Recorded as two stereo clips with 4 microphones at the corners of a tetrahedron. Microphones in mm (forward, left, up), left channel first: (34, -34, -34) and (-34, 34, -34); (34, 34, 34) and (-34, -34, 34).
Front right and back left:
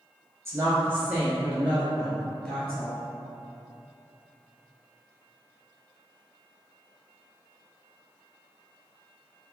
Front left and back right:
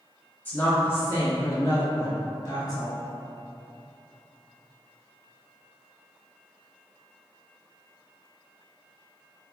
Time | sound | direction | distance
0.5 | a woman speaking | 100° left | 1.9 m